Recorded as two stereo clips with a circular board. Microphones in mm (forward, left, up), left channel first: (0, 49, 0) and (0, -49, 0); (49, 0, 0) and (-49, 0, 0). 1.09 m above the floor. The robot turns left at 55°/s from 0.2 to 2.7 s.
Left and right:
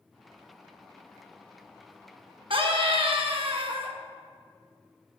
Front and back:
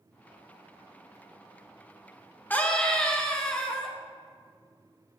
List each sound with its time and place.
2.5 s a scream: 70° right, 1.2 m; by 3.9 s 85° right, 1.2 m